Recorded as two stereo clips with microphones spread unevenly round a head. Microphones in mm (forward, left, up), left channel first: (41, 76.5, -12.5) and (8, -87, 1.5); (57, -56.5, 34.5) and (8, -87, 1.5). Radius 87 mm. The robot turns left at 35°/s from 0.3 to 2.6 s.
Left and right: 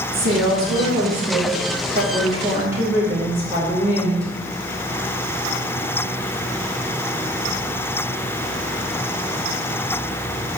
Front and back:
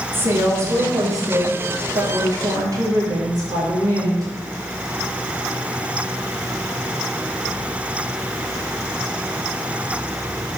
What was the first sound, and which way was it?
A woman speaking, 95° right.